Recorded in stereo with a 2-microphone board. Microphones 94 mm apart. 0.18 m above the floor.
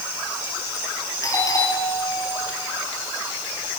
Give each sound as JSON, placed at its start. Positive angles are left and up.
{"t": 1.2, "sound": "a doorbell", "side_deg": 35, "distance_m": 6.0}